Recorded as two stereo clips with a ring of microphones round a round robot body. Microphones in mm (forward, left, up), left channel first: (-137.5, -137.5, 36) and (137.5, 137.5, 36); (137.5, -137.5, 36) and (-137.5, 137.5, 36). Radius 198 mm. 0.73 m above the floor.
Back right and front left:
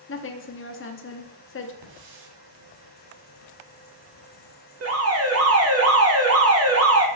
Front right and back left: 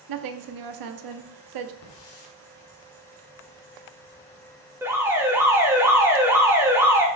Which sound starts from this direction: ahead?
A hiss, at 1.8 s.